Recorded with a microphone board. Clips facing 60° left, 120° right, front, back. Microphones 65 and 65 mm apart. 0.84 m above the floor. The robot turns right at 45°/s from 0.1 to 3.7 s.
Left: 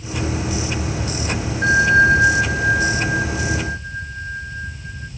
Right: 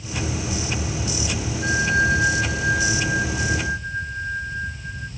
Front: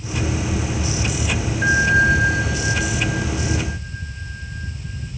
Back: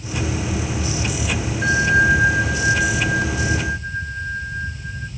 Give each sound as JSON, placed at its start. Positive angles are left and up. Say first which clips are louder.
{"t": 1.6, "sound": "a bell", "louder": "left 7 dB, even", "azimuth_deg": 80, "distance_m": 0.8}